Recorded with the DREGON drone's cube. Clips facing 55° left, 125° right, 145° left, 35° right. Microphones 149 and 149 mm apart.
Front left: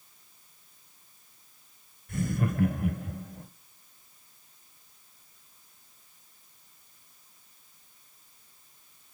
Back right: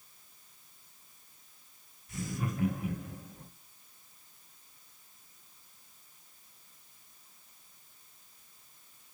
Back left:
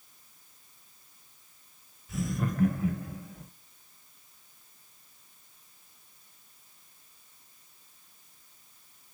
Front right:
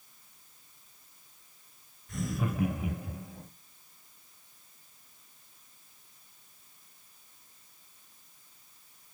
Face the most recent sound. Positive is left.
turn(degrees=30)